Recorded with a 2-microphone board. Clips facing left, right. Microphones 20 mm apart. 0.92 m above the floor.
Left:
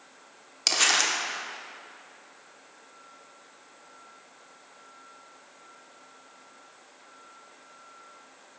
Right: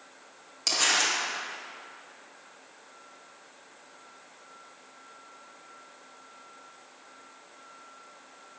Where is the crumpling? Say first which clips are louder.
Left 2 dB; 30° left (ahead or behind), 0.7 m.